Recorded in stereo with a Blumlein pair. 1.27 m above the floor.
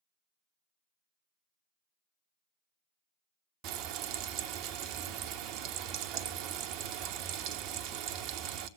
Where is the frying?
40° right, 1.0 m.